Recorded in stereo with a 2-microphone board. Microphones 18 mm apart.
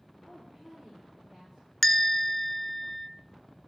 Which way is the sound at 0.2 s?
20° right (ahead or behind).